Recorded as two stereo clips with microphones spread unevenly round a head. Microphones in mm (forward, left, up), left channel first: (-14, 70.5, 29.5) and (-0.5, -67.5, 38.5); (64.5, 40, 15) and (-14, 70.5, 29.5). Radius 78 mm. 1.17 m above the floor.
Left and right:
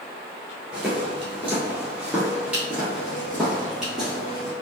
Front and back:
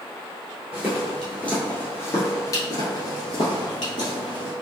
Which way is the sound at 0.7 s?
150° right.